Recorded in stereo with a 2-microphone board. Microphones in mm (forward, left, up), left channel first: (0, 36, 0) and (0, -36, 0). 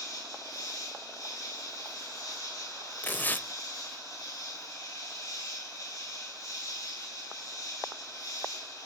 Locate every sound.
0.0 s an insect: 60° left (ahead or behind), 8 m
3.0 s tearing paper: 25° left (ahead or behind), 0.5 m